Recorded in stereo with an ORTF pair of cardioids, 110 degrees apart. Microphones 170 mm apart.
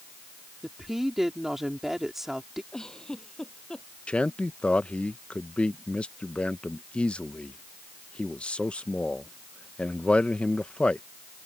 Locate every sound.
0.6 s a woman speaking: straight ahead
2.7 s a giggle: 5° left
4.1 s a man speaking: 5° left